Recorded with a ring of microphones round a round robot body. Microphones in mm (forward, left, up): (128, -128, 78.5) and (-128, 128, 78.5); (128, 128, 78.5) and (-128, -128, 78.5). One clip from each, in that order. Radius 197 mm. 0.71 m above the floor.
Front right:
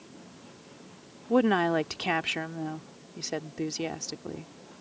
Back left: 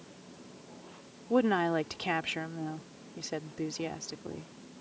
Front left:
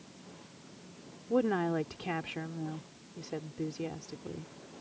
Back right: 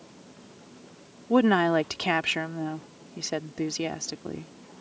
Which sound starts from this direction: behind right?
A woman speaking, at 1.3 s.